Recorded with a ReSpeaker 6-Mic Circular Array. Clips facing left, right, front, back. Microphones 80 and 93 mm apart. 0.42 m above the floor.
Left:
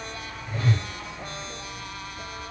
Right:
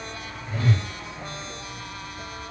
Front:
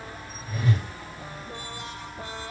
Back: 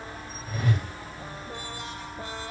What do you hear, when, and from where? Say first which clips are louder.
0.5 s a whoosh: right 1 dB, front 1 dB; straight behind, 1.4 m